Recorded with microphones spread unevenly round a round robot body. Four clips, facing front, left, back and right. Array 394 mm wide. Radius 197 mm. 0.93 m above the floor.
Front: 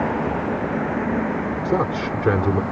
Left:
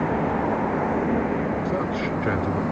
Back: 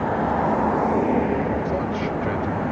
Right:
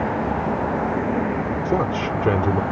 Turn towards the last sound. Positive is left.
turn(degrees=-35)